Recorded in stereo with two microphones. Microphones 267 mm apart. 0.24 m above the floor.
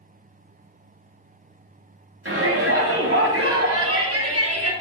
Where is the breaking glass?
No breaking glass in this recording.